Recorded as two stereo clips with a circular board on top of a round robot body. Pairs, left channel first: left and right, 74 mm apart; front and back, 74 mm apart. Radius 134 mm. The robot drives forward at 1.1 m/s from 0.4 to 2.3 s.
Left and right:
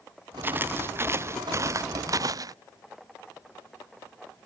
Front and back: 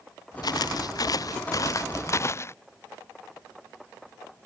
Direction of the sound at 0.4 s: 25° right.